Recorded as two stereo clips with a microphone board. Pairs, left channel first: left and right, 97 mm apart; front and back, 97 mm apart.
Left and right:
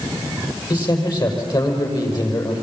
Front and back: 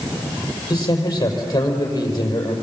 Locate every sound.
0.7 s a man speaking: 50° left, 5.5 m